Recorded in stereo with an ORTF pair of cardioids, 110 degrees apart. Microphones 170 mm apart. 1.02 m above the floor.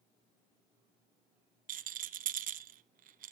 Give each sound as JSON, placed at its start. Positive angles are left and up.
{"t": 1.7, "sound": "a rattle", "azimuth_deg": -60, "distance_m": 0.9}